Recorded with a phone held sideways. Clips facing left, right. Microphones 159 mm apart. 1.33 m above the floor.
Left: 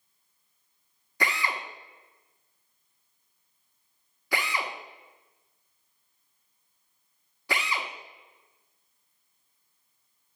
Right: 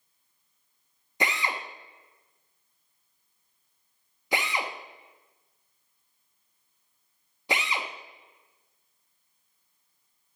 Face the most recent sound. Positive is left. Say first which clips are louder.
# even
turn(degrees=-20)  # may be behind; listen again after turning